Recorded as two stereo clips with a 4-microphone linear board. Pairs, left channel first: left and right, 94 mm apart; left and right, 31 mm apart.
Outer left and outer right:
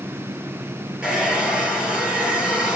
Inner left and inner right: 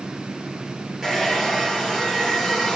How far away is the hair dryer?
About 5.5 m.